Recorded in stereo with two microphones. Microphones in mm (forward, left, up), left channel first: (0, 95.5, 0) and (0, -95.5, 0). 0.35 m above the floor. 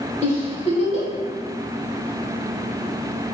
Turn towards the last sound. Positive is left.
turn(degrees=35)  # may be behind; listen again after turning